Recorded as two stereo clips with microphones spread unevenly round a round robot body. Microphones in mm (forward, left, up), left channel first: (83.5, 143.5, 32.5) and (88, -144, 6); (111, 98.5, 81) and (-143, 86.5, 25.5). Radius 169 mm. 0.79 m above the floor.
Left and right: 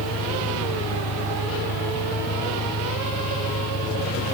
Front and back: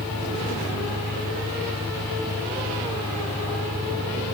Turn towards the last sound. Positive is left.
turn(degrees=105)